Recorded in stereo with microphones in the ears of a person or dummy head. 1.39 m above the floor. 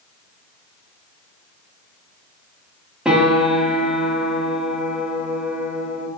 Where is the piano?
5° right (ahead or behind), 1.2 m.